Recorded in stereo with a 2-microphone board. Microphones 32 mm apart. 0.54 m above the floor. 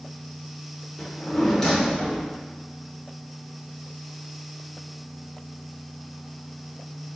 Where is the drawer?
20° left (ahead or behind), 0.9 m.